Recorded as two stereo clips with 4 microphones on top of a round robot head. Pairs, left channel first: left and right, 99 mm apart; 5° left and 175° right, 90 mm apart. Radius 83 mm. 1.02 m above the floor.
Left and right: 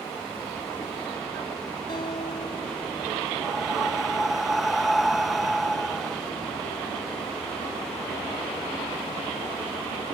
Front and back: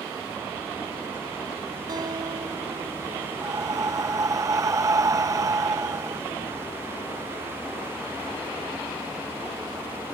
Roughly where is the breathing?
Behind.